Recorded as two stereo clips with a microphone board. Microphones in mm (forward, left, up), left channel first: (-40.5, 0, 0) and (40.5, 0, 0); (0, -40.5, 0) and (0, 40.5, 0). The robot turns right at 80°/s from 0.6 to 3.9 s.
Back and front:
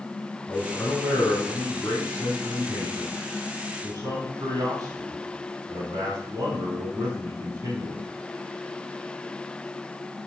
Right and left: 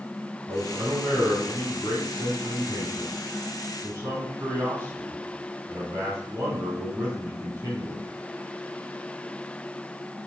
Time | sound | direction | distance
0.5 | a man speaking | 130° left | 4 m